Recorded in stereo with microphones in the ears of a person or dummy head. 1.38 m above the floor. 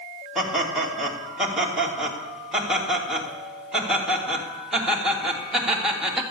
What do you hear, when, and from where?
0.3 s laughter: centre (ahead or behind), 2.5 m